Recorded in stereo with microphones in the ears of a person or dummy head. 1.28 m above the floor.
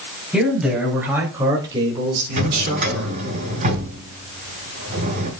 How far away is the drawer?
About 3 m.